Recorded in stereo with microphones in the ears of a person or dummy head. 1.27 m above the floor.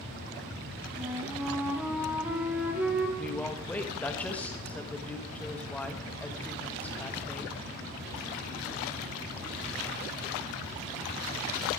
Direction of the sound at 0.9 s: 10° right (ahead or behind).